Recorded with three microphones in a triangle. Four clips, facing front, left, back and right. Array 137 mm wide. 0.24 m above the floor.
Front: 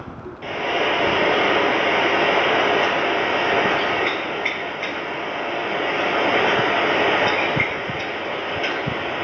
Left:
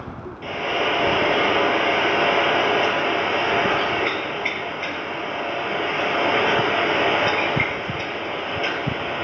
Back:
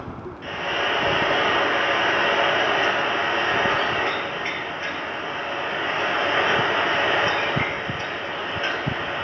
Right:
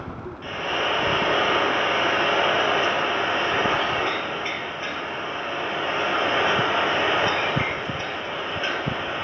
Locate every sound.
0.4 s frying: 25° left, 3.5 m